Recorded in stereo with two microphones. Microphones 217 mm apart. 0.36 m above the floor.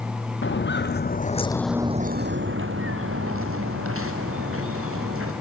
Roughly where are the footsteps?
Left.